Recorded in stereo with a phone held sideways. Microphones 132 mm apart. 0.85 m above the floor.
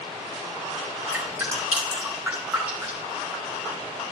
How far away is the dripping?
About 3 m.